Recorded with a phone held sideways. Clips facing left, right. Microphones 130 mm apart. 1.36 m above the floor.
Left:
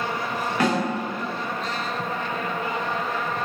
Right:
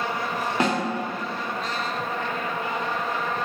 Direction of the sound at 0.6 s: 25° right (ahead or behind).